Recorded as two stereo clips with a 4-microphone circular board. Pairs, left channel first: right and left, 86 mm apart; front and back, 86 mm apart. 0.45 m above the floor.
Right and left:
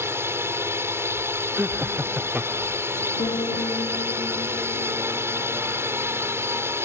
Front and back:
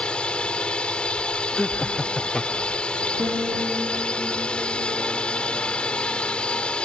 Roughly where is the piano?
Right.